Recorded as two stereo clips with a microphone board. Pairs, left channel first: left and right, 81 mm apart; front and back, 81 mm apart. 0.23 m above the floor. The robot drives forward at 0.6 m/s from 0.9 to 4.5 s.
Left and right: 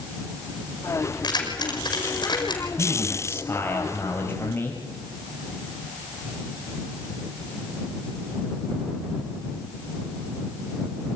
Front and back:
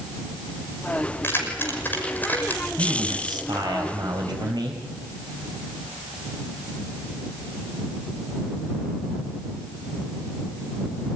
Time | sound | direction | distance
1.2 | keys jangling | 60° left | 6 m
2.8 | a man speaking | 150° left | 5 m